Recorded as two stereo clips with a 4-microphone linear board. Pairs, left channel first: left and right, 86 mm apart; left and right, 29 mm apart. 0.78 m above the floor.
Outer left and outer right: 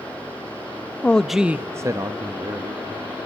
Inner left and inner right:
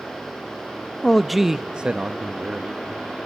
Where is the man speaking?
15° left (ahead or behind), 0.7 m; by 2.8 s 60° right (ahead or behind), 1.3 m.